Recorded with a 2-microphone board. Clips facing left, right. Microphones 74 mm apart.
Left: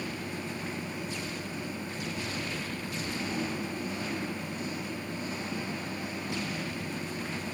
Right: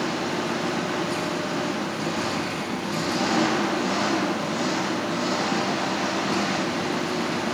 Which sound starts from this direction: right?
An engine running, at 0.0 s.